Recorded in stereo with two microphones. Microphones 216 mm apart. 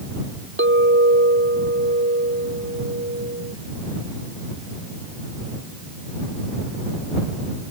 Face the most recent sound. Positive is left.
turn(degrees=-65)  # may be behind; listen again after turning